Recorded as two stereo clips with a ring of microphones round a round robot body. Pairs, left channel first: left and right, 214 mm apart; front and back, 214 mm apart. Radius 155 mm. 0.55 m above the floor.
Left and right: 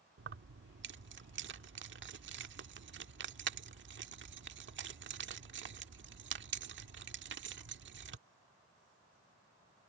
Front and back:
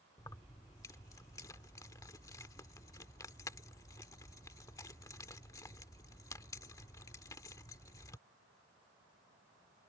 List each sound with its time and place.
0.2 s keys jangling: 75° right